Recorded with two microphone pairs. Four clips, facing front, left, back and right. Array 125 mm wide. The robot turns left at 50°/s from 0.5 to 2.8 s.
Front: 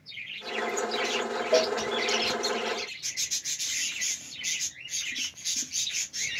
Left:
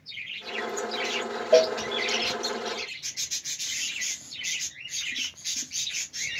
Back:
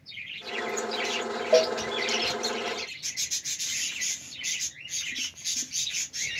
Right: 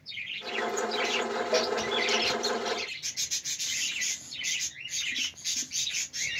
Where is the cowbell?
100° left, 0.8 m; by 1.8 s 85° left, 0.8 m.